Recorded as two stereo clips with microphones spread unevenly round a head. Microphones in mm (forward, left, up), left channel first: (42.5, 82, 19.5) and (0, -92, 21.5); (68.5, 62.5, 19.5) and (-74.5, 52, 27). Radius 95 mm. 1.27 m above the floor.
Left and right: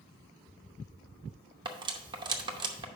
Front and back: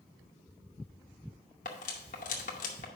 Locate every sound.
1.6 s cutlery clinking: 40° right, 0.8 m